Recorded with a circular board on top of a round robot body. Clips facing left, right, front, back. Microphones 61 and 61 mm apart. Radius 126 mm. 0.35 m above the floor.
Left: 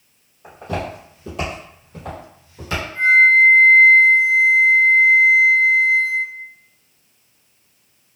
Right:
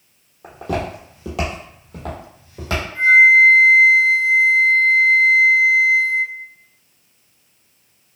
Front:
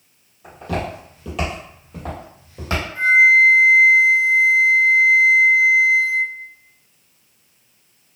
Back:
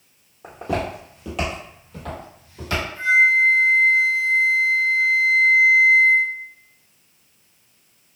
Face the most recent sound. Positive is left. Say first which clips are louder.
# right 2 dB, front 4 dB
turn(degrees=-10)